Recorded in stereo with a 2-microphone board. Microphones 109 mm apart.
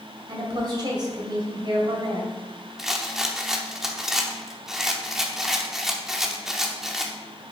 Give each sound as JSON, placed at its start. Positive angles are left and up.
{"t": 0.3, "sound": "a woman speaking", "side_deg": -45, "distance_m": 2.0}
{"t": 2.8, "sound": "a rattle", "side_deg": -5, "distance_m": 0.7}